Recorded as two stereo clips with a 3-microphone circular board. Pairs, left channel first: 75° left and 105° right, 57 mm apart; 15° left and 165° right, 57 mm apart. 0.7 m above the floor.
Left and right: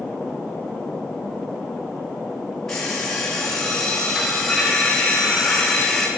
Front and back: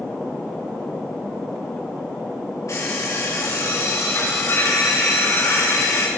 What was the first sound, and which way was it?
An alarm clock, 10° right.